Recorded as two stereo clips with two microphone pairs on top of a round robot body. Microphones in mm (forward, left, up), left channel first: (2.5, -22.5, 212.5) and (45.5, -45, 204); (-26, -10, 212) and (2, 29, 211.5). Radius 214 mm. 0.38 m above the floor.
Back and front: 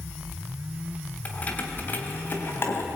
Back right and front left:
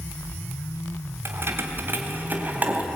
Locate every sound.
1.2 s keys jangling: 85° left, 2.5 m; by 2.9 s 110° left, 3 m